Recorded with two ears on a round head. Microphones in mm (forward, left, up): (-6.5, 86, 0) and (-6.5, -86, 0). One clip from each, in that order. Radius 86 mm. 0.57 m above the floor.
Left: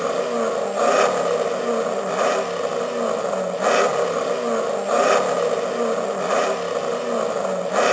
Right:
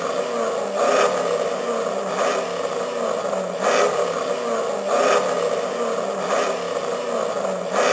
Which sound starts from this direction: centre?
An engine running, at 0.0 s.